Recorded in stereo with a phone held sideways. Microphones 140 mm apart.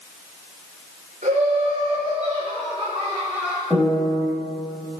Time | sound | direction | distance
1.2 | laughter | 60° right (ahead or behind) | 4 m
3.7 | a piano | centre (ahead or behind) | 4 m